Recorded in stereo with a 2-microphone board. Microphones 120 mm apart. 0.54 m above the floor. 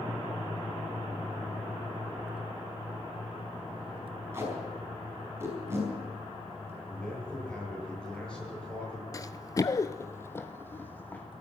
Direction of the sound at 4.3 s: 20° right (ahead or behind).